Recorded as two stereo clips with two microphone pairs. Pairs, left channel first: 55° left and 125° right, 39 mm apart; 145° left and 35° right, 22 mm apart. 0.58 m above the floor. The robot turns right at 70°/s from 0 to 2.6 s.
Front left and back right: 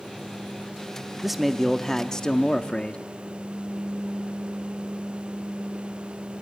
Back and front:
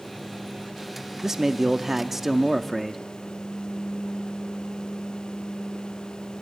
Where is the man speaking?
55° right, 0.6 m; by 3.0 s 40° left, 0.6 m.